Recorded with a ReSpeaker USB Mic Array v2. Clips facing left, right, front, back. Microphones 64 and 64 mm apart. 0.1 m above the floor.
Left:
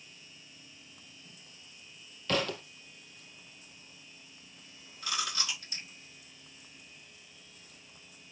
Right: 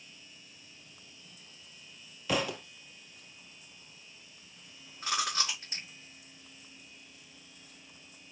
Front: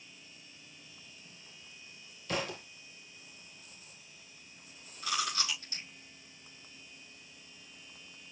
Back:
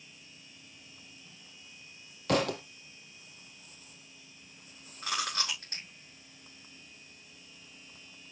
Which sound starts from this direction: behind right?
Chewing, at 5.0 s.